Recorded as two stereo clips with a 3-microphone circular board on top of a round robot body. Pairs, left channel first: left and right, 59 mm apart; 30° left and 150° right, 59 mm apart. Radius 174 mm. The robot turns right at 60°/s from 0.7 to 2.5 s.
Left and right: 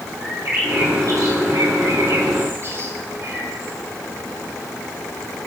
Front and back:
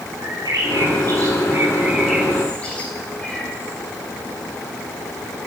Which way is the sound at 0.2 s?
145° right.